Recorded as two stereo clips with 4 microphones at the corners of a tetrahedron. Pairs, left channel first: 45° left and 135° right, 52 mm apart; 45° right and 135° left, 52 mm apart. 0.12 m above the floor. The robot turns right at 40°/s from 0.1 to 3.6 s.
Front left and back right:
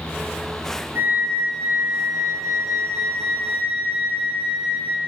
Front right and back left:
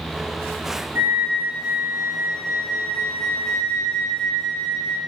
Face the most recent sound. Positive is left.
turn(degrees=-75)